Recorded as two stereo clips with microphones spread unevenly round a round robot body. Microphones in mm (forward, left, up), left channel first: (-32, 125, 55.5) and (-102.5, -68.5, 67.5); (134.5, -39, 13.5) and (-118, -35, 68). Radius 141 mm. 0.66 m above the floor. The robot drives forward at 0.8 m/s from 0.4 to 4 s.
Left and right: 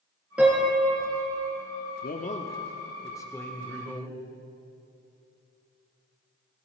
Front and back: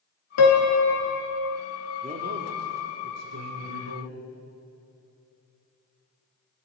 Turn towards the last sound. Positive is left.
turn(degrees=155)